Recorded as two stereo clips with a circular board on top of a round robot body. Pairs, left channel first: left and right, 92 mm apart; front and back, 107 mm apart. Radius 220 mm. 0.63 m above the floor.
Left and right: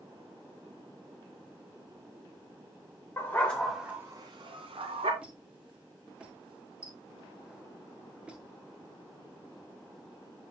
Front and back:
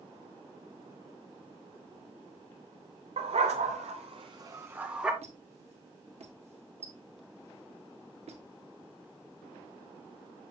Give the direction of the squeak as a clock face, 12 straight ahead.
6 o'clock.